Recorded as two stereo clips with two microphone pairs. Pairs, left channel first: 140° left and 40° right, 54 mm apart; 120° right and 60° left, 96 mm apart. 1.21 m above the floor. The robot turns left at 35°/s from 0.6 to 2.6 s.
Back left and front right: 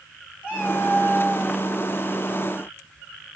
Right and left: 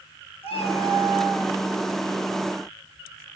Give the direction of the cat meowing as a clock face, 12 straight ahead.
4 o'clock.